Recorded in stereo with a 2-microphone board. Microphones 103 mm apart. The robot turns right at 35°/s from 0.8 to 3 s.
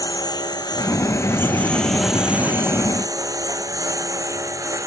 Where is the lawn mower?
40° left (ahead or behind); by 4.9 s 30° right (ahead or behind).